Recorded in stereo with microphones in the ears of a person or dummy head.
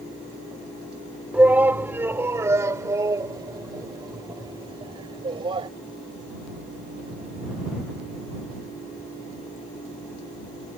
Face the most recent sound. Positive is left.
turn(degrees=-30)  # may be behind; listen again after turning